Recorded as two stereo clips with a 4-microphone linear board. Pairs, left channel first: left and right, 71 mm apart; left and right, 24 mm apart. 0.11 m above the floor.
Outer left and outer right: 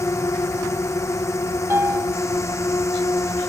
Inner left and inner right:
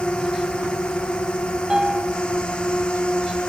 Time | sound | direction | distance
0.0 | a drone | 45° left (ahead or behind) | ?
1.7 | a piano | 35° right (ahead or behind) | ?